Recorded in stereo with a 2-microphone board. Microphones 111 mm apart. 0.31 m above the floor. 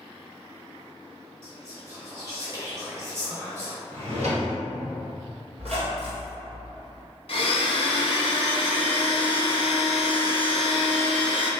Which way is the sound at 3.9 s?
75° right (ahead or behind).